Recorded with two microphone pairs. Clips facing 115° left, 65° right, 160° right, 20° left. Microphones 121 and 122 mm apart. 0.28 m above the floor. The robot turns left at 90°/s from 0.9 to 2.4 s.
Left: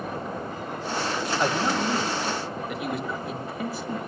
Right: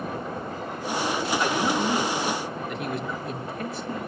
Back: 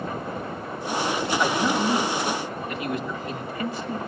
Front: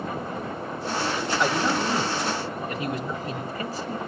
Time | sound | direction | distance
1.4 | a man speaking | 120° left | 1.6 m